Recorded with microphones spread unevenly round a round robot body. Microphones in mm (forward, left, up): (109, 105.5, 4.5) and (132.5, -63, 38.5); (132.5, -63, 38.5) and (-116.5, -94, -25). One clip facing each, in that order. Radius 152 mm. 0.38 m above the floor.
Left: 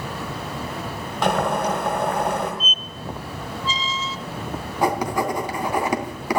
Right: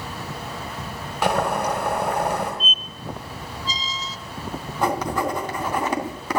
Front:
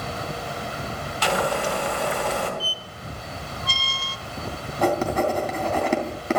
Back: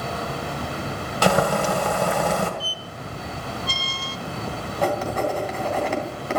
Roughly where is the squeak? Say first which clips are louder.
Left 1 dB, back 2 dB; ahead right.